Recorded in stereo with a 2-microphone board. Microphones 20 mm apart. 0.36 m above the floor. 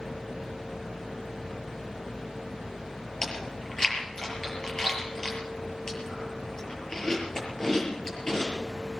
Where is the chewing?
30° left (ahead or behind), 6 m.